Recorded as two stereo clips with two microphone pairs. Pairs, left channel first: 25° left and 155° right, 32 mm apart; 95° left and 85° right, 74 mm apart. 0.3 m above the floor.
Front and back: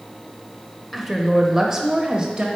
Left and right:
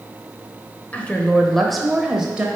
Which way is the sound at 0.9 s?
125° left.